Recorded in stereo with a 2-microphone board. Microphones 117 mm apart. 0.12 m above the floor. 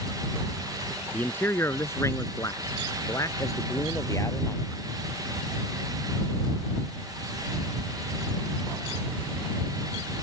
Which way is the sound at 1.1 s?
15° left (ahead or behind).